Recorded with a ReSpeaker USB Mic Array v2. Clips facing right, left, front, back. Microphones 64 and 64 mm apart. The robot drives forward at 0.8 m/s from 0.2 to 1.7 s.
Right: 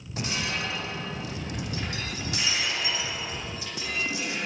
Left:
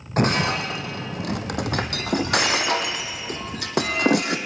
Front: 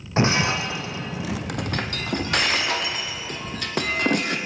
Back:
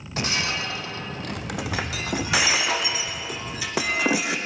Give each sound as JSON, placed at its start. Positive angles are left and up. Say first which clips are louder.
{"t": 0.2, "sound": "breaking glass", "louder": "left 10 dB, front 6 dB", "azimuth_deg": 60, "distance_m": 2.0}